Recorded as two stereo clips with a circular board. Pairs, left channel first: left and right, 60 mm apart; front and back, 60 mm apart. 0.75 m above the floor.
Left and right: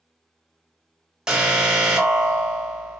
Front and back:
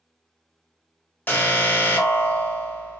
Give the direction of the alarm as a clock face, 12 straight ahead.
1 o'clock.